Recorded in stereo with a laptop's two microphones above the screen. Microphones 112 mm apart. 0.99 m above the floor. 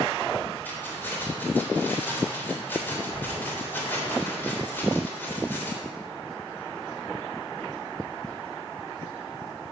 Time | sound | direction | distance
0.7 | keys jangling | 20° left (ahead or behind) | 3 m